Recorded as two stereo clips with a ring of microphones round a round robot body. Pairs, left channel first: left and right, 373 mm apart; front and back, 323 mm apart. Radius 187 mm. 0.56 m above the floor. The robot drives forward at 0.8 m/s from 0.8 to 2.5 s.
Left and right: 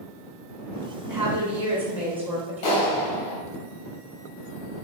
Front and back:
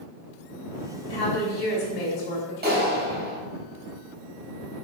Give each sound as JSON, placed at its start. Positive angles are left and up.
{"t": 1.1, "sound": "a woman speaking", "azimuth_deg": -10, "distance_m": 4.0}
{"t": 2.6, "sound": "a clap", "azimuth_deg": 120, "distance_m": 3.5}